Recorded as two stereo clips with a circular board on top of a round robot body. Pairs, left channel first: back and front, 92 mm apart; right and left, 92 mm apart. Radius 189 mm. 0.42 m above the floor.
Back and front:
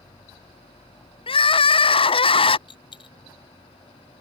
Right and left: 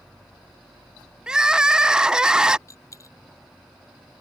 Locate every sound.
1.3 s crying: 170° left
2.7 s a dropped coin: 150° right